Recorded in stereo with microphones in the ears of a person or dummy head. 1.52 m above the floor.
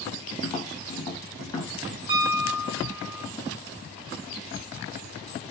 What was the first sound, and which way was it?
Tapping, 30° left (ahead or behind).